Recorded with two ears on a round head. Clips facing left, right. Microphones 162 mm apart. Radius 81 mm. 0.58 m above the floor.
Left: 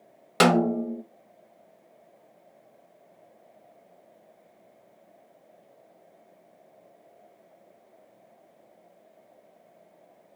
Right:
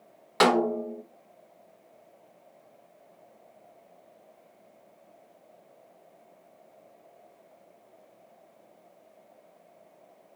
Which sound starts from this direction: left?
A snare drum, at 0.4 s.